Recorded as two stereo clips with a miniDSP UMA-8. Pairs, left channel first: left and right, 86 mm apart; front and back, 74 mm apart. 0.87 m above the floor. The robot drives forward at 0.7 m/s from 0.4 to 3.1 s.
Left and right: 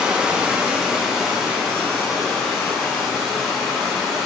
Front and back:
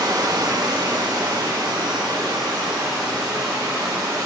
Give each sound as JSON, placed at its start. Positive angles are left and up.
{"t": 0.0, "sound": "running water", "azimuth_deg": -170, "distance_m": 1.0}